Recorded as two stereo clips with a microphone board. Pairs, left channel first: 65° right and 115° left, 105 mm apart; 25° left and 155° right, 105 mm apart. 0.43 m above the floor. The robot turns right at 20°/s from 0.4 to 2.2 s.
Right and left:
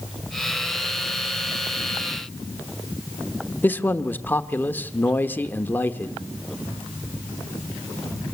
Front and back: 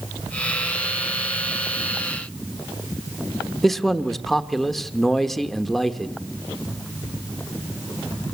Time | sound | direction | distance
3.6 | a man speaking | 65° right | 1.0 m